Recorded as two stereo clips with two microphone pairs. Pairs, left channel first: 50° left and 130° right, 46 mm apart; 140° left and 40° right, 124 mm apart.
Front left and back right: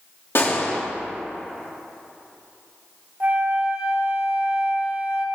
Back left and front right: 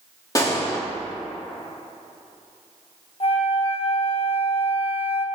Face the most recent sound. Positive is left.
turn(degrees=180)